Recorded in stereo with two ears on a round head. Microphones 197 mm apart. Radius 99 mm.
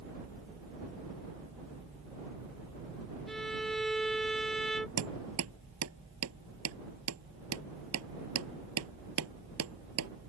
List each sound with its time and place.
3.3 s a violin: centre (ahead or behind)
5.0 s hammering: 75° right (ahead or behind)